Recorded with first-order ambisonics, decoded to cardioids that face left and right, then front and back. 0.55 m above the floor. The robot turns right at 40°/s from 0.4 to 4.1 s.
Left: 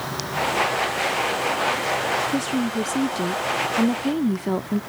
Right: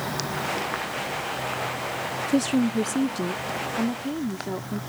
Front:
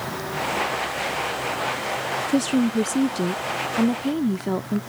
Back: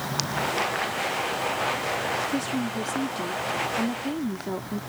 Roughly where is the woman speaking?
Ahead right.